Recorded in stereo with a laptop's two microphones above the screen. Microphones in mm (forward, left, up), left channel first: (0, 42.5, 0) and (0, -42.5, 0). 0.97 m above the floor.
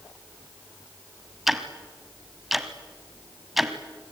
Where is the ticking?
5° right (ahead or behind), 1.4 m.